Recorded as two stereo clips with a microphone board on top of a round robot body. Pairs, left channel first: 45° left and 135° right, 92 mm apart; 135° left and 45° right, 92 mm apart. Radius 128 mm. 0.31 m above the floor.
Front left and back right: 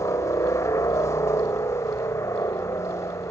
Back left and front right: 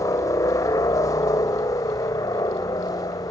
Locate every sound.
0.0 s a helicopter: 95° left